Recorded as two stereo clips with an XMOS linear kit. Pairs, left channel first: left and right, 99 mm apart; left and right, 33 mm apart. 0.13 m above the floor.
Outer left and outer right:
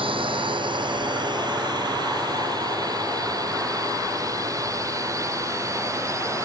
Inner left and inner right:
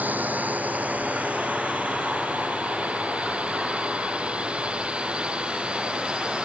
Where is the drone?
60° right (ahead or behind); by 6.5 s 30° right (ahead or behind).